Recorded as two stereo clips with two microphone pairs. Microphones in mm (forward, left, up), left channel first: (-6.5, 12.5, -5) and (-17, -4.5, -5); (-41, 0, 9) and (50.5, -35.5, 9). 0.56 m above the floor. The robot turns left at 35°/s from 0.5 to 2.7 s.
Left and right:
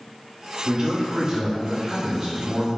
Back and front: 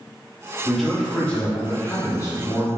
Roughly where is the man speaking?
Right.